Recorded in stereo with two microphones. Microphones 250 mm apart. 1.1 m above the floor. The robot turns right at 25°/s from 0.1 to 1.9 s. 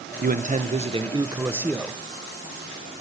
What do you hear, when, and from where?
0.2 s a man speaking: 45° right, 0.5 m; by 2.0 s 5° right, 0.5 m